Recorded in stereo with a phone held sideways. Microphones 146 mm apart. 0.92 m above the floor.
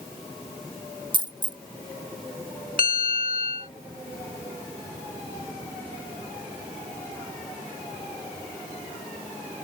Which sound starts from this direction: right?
A dropped coin, at 1.1 s.